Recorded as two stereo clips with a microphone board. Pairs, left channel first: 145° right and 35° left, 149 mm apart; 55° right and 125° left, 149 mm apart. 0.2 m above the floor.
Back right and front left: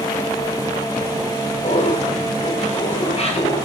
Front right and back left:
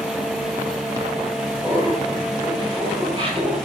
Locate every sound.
1.6 s laughter: 170° right, 5.5 m; by 3.6 s 170° left, 5 m